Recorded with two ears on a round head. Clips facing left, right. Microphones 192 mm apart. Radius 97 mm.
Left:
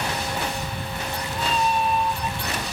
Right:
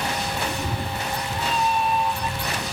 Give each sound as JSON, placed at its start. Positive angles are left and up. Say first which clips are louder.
{"t": 0.5, "sound": "a cat meowing", "louder": "right 2 dB", "side_deg": -45}